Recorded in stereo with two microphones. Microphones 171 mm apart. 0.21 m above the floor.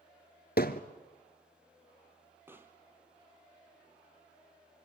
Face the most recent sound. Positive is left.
turn(degrees=-15)  # may be behind; listen again after turning